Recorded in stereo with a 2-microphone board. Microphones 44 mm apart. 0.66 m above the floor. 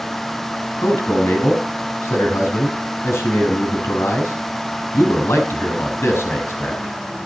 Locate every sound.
0.8 s a man speaking: 80° left, 6 m